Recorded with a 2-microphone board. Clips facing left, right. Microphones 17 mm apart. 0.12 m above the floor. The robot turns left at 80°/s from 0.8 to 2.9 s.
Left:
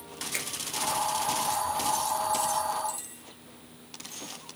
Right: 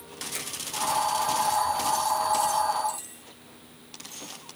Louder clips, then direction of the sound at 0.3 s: Left 3 dB; 35° left (ahead or behind).